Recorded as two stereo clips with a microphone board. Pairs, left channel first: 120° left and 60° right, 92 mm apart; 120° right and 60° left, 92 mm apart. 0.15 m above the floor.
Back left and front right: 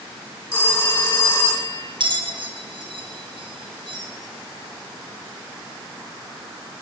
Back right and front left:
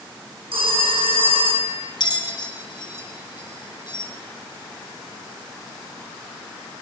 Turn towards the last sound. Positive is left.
turn(degrees=-85)